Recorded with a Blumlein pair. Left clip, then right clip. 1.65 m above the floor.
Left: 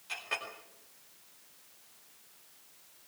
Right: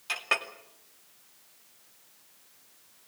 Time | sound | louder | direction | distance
0.1 | a clink | right 8 dB | 55° right | 2.5 m